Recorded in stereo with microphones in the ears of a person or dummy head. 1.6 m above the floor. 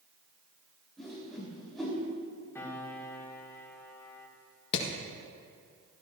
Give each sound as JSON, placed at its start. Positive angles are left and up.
{"t": 1.0, "sound": "a whoosh", "side_deg": 0, "distance_m": 4.5}
{"t": 2.5, "sound": "a piano", "side_deg": 10, "distance_m": 2.0}
{"t": 4.7, "sound": "hammering", "side_deg": 60, "distance_m": 1.6}